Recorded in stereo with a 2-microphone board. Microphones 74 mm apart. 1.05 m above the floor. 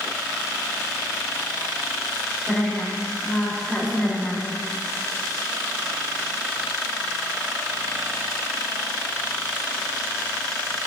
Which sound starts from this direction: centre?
A woman speaking, at 2.5 s.